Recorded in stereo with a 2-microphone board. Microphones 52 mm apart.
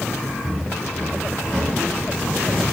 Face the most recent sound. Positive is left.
turn(degrees=-5)  # may be behind; listen again after turning